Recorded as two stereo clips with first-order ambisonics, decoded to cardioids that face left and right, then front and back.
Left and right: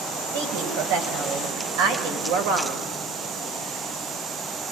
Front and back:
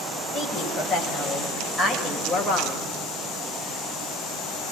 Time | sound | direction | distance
0.3 | a woman speaking | 85° right | 8.5 m